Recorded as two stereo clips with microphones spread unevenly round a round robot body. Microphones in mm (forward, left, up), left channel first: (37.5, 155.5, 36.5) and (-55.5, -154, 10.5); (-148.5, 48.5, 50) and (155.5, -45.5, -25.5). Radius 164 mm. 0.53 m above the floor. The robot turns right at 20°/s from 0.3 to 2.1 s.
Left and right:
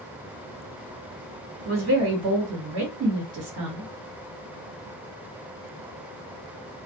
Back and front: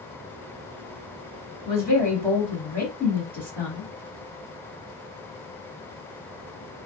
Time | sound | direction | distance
1.6 | a woman speaking | 110° right | 1.4 m